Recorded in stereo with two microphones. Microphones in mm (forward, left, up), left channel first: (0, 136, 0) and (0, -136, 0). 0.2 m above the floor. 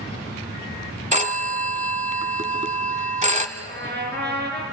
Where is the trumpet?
40° right (ahead or behind), 3.5 m.